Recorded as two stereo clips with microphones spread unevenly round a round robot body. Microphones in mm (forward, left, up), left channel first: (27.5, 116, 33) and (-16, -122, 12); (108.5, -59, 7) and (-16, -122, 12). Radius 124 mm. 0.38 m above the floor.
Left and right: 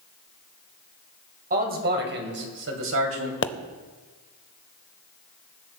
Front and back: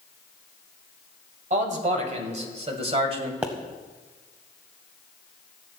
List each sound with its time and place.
1.5 s a man speaking: 145° right, 2 m; by 3.3 s 110° right, 2.5 m
3.4 s a pop: 125° left, 0.6 m